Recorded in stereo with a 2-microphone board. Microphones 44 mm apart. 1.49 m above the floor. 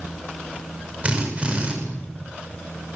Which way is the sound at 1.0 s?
30° right (ahead or behind).